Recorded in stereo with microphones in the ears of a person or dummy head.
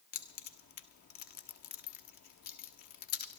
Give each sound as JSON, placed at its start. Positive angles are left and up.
{"t": 0.1, "sound": "keys jangling", "side_deg": 55, "distance_m": 0.7}